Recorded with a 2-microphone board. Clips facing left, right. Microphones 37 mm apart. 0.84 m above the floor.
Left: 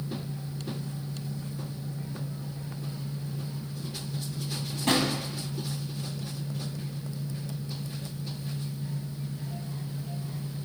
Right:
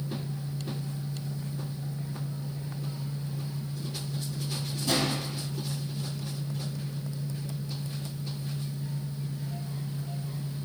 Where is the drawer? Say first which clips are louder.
Left 3 dB; 60° left (ahead or behind), 2 m.